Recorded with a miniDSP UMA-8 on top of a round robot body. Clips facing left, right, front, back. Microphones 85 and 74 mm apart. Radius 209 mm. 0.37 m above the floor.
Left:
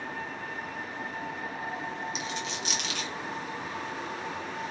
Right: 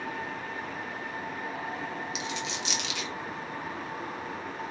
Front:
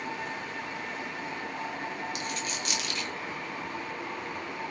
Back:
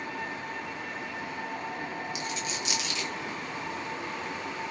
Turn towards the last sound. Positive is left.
turn(degrees=45)